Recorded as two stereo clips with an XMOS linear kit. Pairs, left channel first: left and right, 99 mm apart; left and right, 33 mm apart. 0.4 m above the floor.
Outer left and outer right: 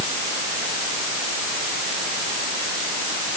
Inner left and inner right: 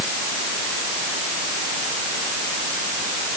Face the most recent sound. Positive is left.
No sound to turn to.